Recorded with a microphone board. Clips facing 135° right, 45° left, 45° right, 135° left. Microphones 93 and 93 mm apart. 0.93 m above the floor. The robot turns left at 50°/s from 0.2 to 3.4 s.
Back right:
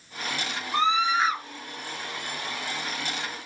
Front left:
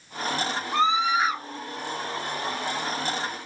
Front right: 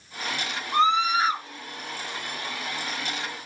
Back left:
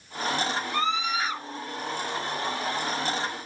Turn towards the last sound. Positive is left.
turn(degrees=-145)